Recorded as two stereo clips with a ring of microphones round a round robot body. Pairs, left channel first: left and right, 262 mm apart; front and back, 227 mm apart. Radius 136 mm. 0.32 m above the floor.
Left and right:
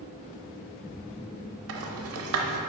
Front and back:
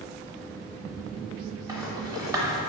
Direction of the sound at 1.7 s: 105° right.